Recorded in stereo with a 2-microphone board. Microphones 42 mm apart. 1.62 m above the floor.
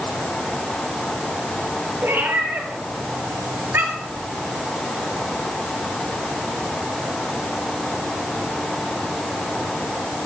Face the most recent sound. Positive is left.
turn(degrees=-60)  # may be behind; listen again after turning